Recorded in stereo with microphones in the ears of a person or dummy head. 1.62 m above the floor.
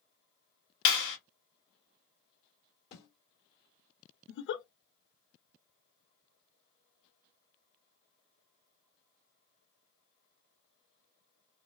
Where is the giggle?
70° left (ahead or behind), 0.6 m.